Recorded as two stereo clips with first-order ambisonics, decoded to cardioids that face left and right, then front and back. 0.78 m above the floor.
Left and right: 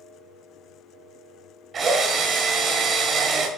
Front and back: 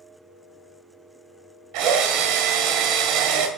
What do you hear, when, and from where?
1.7 s a drill: 155° right, 1.7 m